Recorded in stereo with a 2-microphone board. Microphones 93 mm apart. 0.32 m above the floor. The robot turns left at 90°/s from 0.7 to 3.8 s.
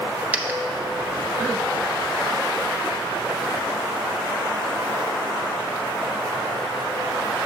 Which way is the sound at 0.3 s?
15° right (ahead or behind).